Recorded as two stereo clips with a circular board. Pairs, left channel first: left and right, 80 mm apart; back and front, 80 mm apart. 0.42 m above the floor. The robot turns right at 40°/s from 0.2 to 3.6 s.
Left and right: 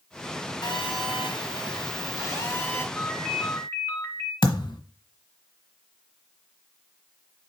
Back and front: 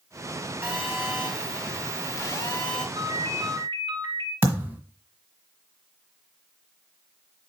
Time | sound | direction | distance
0.6 | a phone buzzing | 75° left | 2.5 m
3.0 | a ringtone | 15° left | 3.5 m
4.4 | a thud | 70° left | 1.3 m